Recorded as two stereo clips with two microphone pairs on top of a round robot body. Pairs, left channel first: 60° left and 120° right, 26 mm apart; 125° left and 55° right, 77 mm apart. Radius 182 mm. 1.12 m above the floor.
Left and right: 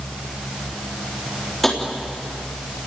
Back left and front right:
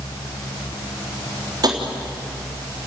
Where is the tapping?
20° right, 3.5 m.